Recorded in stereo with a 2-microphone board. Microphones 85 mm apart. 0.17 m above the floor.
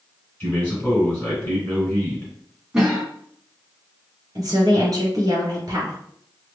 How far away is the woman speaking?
About 1.7 m.